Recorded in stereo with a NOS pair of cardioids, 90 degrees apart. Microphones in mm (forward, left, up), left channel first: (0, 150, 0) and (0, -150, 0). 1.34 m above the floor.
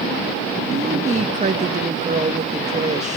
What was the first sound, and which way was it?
A woman speaking, 25° right.